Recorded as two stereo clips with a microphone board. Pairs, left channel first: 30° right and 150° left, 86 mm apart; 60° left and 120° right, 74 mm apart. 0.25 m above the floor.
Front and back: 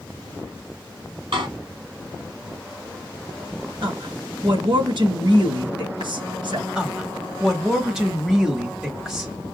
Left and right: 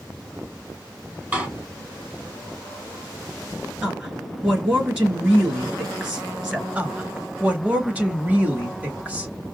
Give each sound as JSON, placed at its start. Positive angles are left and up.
{"t": 1.3, "sound": "a door slam", "azimuth_deg": 170, "distance_m": 4.5}
{"t": 3.8, "sound": "a woman speaking", "azimuth_deg": 170, "distance_m": 3.5}
{"t": 6.8, "sound": "a woman speaking", "azimuth_deg": -135, "distance_m": 1.1}